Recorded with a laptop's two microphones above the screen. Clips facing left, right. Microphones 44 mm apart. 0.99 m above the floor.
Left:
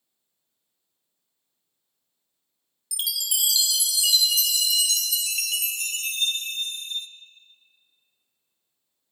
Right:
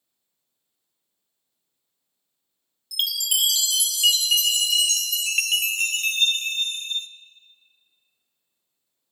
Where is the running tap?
No running tap in this recording.